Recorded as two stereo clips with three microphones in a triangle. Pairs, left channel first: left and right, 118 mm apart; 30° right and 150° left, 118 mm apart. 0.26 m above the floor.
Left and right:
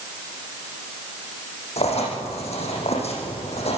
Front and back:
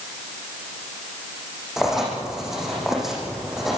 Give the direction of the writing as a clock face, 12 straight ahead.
10 o'clock.